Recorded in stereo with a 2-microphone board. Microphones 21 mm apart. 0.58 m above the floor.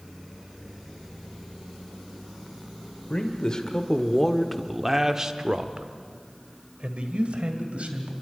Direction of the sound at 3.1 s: 45° left (ahead or behind).